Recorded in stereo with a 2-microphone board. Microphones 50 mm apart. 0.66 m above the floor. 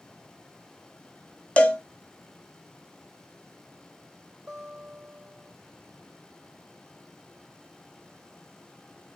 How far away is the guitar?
About 3 m.